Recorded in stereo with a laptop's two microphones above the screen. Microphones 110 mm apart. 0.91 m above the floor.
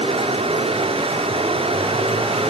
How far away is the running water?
About 2.5 m.